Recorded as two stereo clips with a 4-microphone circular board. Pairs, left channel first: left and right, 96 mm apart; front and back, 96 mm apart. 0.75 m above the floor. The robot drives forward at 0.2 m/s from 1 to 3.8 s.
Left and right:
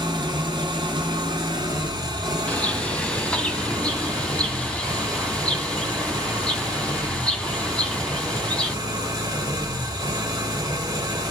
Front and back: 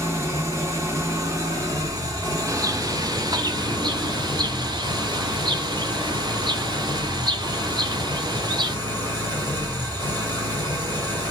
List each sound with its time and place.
0.0 s an engine running: 125° right, 2.0 m; by 11.3 s 135° right, 2.5 m
2.5 s a bird: 160° left, 0.7 m; by 8.8 s 170° left, 0.8 m